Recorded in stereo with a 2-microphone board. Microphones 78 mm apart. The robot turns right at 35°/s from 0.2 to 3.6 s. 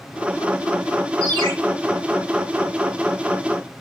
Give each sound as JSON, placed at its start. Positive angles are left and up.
{"t": 1.2, "sound": "a ringtone", "side_deg": -60, "distance_m": 3.5}